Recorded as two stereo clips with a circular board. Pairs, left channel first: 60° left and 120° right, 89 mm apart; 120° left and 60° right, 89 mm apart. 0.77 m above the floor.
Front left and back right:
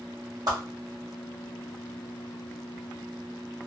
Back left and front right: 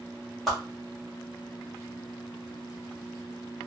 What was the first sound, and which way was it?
A whoosh, 150° right.